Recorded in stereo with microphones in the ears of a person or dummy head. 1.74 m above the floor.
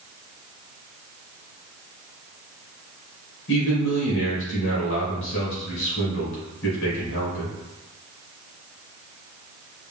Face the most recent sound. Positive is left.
turn(degrees=65)  # may be behind; listen again after turning